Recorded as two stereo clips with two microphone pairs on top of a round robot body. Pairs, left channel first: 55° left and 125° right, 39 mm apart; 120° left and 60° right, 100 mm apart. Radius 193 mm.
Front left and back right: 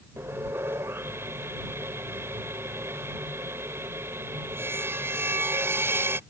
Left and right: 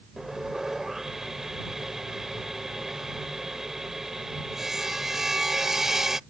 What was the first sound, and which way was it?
Sawing, 155° right.